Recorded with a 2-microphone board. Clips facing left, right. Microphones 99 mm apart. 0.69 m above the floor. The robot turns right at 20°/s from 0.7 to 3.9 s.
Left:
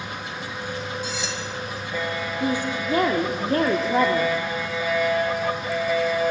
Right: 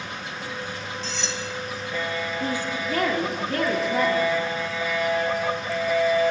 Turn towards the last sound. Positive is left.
turn(degrees=45)